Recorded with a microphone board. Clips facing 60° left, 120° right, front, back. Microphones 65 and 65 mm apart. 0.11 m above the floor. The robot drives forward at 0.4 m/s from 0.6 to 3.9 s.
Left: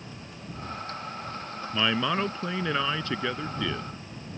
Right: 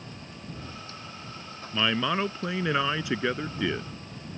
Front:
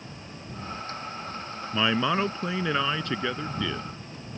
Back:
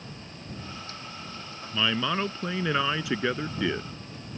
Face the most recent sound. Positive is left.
turn(degrees=-165)